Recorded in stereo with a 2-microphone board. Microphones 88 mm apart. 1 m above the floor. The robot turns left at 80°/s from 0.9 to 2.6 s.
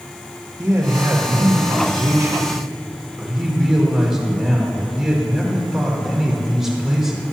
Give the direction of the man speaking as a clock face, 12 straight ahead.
1 o'clock.